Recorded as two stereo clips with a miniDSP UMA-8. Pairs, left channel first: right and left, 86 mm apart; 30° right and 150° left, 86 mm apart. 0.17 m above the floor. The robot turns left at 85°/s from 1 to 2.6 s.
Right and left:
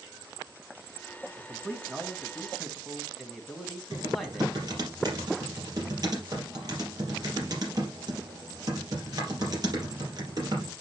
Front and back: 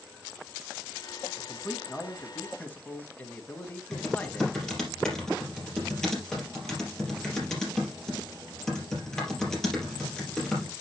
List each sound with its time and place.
1.4 s a man speaking: 100° left, 1.6 m; by 4.6 s straight ahead, 1.6 m
3.9 s typing on a keyboard: 50° left, 3.5 m